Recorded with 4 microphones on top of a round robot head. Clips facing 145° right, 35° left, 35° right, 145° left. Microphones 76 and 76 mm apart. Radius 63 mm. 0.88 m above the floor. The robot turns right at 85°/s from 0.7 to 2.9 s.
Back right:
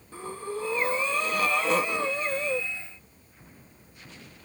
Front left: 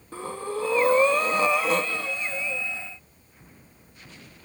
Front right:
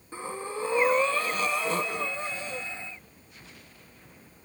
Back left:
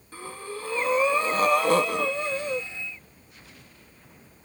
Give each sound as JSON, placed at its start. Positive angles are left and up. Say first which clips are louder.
{"t": 0.1, "sound": "breathing", "louder": "front left 3 dB, front right 2 dB", "azimuth_deg": 35, "distance_m": 0.8}